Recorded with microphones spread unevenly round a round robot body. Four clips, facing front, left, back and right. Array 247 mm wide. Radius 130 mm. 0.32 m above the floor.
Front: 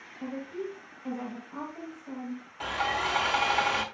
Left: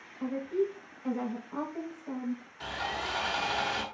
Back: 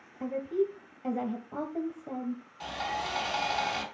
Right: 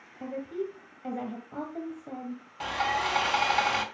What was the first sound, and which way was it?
A woman speaking, 155° right.